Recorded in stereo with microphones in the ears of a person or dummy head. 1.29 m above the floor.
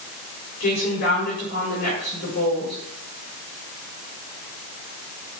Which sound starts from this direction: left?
A woman speaking, at 0.6 s.